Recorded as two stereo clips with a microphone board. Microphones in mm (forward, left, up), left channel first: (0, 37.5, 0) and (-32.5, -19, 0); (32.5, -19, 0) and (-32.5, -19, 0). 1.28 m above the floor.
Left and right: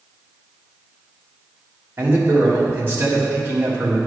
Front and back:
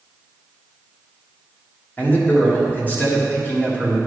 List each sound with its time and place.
2.0 s a man speaking: 65° right, 1.9 m